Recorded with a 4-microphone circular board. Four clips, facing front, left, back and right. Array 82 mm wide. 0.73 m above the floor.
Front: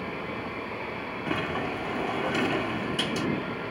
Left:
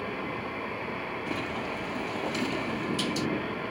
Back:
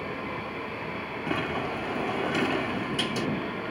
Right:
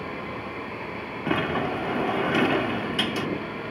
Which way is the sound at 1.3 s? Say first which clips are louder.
Right 11 dB, even; 90° right.